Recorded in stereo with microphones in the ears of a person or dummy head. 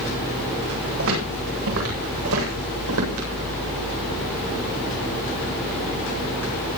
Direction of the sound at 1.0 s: 80° right.